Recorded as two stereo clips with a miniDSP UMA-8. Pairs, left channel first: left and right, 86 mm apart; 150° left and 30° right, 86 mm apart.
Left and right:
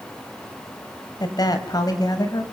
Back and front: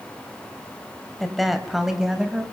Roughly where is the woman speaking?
Ahead left.